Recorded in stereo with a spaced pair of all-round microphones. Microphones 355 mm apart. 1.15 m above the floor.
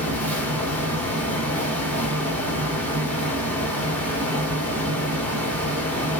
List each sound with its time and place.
0.0 s a fan: 5° left (ahead or behind), 1.5 m